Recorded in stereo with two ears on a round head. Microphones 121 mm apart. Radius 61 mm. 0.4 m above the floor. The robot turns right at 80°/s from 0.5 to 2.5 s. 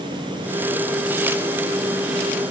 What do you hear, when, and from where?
Only background noise.